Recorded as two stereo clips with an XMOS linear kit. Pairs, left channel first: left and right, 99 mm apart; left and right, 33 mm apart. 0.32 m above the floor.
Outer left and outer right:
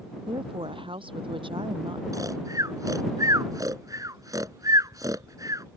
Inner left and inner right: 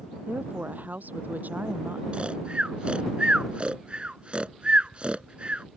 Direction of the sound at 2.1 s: 35° right (ahead or behind).